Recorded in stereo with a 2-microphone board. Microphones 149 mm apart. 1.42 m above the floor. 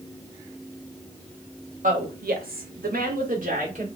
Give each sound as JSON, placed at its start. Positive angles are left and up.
{"t": 1.8, "sound": "a woman speaking", "side_deg": -65, "distance_m": 0.9}